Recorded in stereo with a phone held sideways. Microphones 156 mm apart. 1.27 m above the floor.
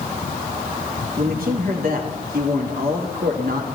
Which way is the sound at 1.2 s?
70° right (ahead or behind).